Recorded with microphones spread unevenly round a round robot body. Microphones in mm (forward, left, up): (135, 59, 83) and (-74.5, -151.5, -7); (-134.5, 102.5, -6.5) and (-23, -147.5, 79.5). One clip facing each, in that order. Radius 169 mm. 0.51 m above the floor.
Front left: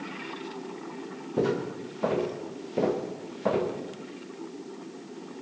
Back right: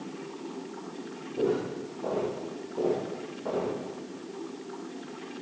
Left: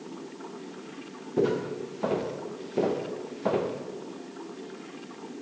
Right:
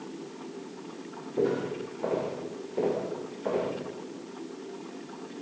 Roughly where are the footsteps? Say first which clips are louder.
Even, left 2 dB; ahead left.